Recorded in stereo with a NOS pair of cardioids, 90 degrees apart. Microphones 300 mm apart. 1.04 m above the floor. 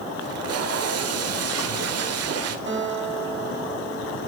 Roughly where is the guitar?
Ahead right.